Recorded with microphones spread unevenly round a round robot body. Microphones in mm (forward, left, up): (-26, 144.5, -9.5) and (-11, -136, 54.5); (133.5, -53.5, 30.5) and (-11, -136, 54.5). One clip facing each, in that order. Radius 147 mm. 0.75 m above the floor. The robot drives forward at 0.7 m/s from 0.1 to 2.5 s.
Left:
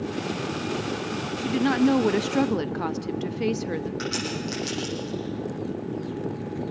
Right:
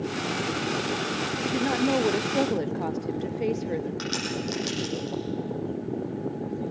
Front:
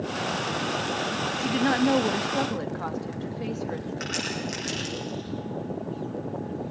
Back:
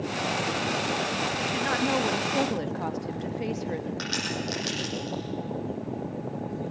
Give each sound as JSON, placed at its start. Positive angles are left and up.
{"t": 1.4, "sound": "a woman speaking", "azimuth_deg": 35, "distance_m": 0.7}
{"t": 4.0, "sound": "a crack", "azimuth_deg": -160, "distance_m": 10.0}